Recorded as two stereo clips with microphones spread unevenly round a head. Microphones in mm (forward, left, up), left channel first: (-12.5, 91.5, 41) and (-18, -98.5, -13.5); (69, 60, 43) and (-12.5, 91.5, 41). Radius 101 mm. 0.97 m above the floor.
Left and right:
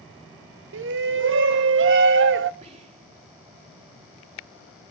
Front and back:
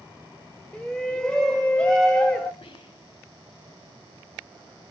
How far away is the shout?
About 1.0 m.